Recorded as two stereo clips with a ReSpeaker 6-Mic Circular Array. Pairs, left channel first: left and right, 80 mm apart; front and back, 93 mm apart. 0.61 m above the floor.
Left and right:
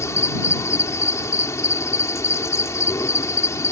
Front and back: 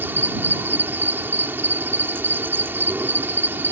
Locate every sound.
0.0 s an insect: 120° left